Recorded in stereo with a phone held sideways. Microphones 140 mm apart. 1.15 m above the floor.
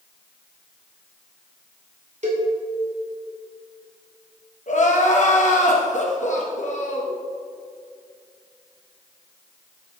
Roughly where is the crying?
Left.